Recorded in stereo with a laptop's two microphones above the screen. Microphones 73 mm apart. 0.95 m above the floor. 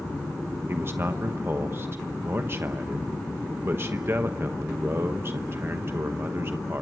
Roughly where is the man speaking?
Right.